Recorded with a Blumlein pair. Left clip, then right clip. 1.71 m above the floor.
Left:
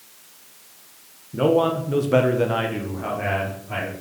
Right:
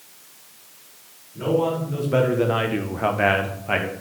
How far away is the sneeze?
I don't hear a sneeze.